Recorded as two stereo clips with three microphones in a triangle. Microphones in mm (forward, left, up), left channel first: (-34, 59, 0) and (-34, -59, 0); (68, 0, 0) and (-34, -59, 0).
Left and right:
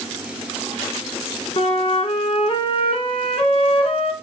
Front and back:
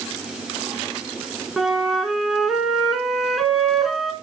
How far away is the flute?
About 1.2 m.